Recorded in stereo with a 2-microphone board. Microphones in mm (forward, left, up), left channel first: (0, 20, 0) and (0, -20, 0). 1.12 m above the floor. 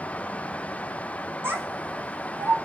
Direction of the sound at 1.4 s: 80° right.